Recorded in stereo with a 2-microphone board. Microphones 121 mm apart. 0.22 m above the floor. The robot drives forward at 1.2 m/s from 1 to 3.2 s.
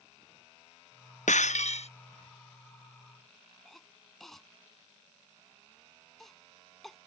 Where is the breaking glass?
80° left; by 1.9 s 60° left (ahead or behind).